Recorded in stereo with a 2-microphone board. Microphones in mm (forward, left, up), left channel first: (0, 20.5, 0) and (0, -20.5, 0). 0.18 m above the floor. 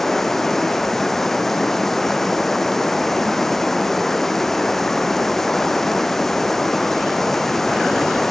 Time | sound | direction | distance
0.0 | running water | 10° left (ahead or behind) | 0.9 m